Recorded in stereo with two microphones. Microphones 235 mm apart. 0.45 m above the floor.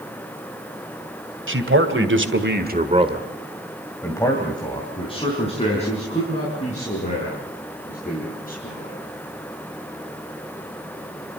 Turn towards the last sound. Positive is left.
turn(degrees=35)  # may be behind; listen again after turning